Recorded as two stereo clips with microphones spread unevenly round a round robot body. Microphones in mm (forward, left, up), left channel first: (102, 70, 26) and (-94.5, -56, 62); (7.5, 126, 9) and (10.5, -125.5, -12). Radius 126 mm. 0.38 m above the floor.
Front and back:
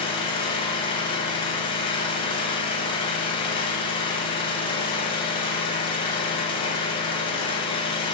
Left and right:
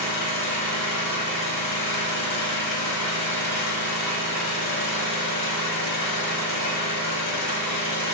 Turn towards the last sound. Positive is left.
turn(degrees=100)